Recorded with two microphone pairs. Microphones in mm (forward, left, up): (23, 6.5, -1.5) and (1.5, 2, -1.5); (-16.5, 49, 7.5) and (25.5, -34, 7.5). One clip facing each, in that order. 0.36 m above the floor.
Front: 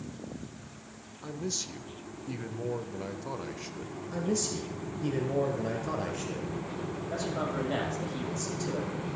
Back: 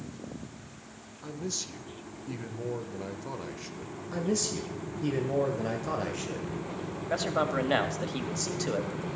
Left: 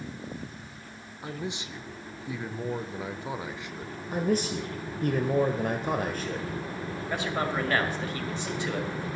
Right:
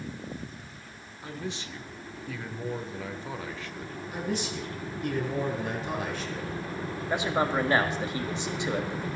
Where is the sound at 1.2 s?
80° left, 0.8 m.